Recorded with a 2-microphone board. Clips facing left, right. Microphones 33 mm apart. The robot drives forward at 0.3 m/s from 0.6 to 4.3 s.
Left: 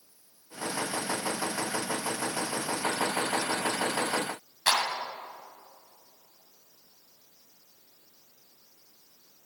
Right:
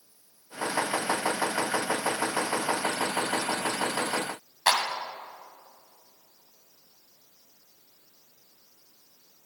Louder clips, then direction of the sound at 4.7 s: Right 2 dB; 30° right (ahead or behind).